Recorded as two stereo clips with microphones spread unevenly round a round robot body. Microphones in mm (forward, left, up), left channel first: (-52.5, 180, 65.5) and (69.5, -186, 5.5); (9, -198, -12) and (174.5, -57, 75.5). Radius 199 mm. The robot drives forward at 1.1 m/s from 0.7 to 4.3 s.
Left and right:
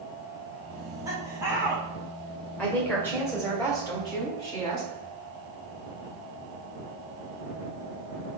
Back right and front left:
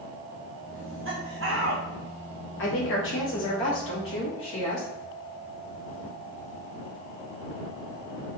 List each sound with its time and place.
0.8 s laughter: 5° left, 3.5 m; by 1.8 s 10° left, 2.5 m
2.6 s a woman speaking: 160° right, 3 m; by 4.9 s 170° right, 5 m